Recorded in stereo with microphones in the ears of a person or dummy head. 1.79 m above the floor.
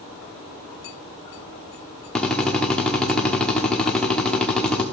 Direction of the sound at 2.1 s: 5° left (ahead or behind).